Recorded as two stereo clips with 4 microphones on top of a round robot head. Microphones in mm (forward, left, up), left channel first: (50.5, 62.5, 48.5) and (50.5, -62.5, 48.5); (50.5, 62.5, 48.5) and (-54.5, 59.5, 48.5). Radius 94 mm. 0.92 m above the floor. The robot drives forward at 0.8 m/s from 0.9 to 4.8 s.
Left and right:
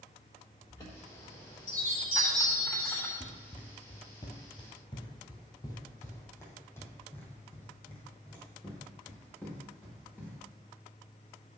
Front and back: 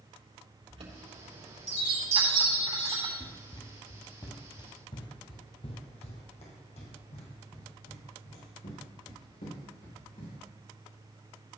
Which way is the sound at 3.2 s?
45° left.